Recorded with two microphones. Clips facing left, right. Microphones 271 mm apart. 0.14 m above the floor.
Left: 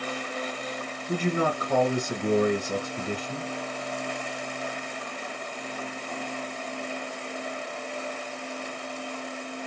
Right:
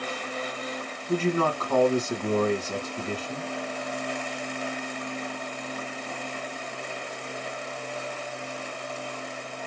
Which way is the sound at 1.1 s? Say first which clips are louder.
Right 2 dB; 15° left (ahead or behind).